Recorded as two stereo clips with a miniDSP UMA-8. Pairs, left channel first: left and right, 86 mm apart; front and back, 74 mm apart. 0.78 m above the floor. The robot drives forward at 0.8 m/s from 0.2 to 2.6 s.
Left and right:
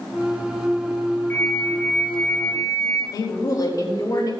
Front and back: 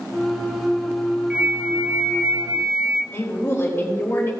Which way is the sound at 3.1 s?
55° left.